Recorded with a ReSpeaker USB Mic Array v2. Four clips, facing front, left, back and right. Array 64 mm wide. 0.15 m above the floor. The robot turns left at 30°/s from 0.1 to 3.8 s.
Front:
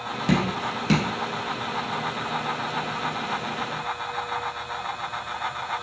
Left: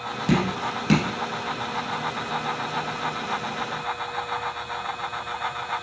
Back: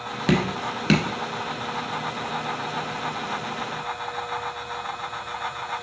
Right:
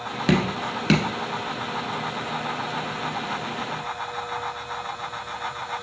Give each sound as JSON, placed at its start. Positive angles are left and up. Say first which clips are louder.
{"t": 0.3, "sound": "dripping", "louder": "right 1 dB, back 1 dB", "azimuth_deg": -130, "distance_m": 0.9}